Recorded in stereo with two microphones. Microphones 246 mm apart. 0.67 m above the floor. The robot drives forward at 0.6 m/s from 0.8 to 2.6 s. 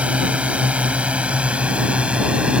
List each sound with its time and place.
0.0 s a drone: 5° right (ahead or behind)